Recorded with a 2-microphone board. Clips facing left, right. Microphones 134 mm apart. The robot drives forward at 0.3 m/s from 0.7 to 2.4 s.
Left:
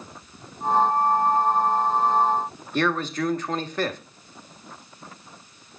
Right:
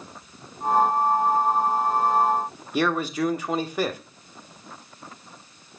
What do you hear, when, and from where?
2.7 s a man speaking: 10° right (ahead or behind), 0.9 m